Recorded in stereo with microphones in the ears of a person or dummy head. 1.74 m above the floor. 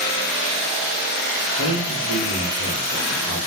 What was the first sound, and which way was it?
A man speaking, 30° left (ahead or behind).